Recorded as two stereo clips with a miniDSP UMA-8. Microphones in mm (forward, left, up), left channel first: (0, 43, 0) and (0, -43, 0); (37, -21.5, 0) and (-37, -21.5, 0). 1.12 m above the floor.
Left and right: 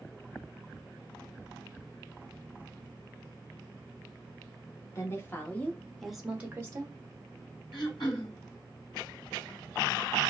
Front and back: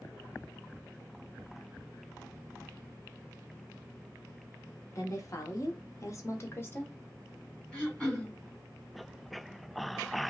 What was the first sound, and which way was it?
A woman speaking, 40° left.